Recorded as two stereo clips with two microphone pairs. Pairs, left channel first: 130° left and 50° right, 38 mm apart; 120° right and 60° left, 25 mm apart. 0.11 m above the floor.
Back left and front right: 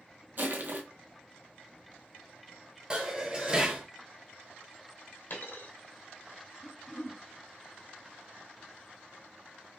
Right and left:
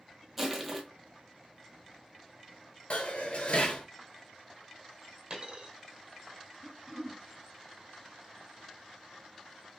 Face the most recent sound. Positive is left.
turn(degrees=90)